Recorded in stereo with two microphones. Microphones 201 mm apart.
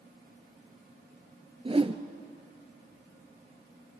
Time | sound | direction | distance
1.6 | a whoosh | 30° right (ahead or behind) | 0.9 m